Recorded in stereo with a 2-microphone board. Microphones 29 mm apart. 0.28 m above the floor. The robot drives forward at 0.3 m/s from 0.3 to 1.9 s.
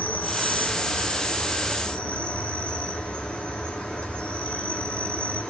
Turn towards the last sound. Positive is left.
turn(degrees=45)  # may be behind; listen again after turning